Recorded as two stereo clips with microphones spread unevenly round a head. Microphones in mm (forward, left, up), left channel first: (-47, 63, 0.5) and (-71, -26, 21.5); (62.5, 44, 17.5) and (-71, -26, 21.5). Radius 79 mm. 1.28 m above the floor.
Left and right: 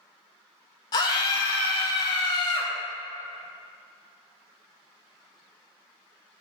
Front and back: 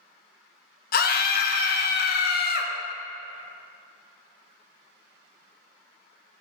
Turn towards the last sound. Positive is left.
turn(degrees=35)